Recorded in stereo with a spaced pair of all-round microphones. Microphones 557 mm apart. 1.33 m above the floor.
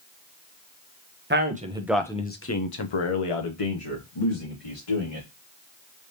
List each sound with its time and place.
1.3 s a man speaking: 20° right (ahead or behind), 0.9 m; by 5.3 s 75° left (ahead or behind), 1.7 m